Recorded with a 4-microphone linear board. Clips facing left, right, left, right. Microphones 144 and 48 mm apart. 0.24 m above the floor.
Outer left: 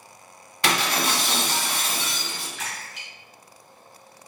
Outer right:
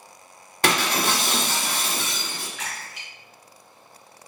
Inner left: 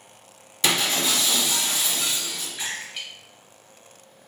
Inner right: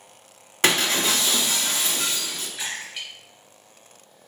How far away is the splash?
About 1.2 m.